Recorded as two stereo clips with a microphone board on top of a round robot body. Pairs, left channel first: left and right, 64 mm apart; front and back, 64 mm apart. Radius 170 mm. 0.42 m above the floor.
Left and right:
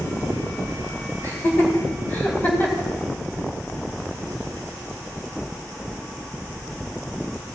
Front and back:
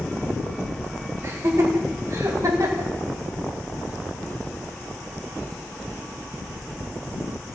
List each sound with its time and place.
1.2 s laughter: 130° left, 3 m; by 2.9 s 155° left, 3 m